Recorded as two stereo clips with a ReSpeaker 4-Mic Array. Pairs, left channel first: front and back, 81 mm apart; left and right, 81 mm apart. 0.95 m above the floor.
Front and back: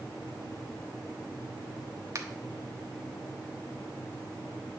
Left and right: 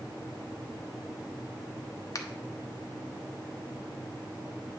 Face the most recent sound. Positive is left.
turn(degrees=130)